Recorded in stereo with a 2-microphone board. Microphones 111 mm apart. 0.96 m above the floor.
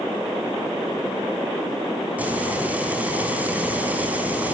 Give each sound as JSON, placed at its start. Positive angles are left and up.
{"t": 2.2, "sound": "frying", "side_deg": -15, "distance_m": 4.0}